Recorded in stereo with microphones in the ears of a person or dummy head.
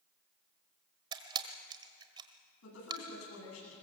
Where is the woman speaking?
90° left, 9.5 m.